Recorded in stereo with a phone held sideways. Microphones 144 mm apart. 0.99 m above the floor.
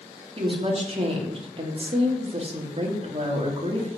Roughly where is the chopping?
I don't hear chopping.